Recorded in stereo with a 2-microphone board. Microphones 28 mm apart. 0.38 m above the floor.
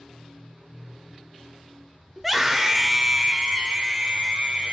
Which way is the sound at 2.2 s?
Centre (ahead or behind).